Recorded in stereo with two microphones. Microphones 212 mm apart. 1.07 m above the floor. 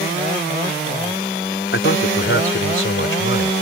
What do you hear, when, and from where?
1.7 s a man speaking: 70° left (ahead or behind)